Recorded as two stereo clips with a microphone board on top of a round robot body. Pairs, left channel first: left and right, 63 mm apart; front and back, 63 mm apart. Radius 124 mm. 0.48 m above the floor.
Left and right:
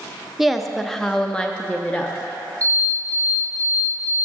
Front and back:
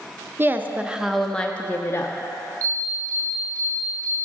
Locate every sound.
0.4 s a woman speaking: straight behind, 0.8 m; by 2.2 s 25° left, 0.9 m
2.6 s an alarm: 140° right, 2.5 m